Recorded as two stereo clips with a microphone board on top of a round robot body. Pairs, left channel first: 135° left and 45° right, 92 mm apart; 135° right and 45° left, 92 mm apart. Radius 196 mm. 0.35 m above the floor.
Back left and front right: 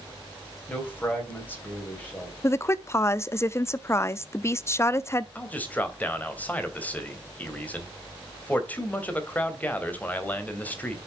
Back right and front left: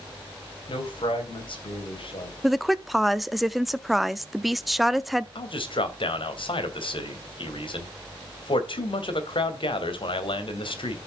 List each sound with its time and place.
0.7 s a man speaking: 155° right, 4 m
2.4 s a woman speaking: 135° left, 0.8 m
5.3 s a man speaking: 150° right, 3 m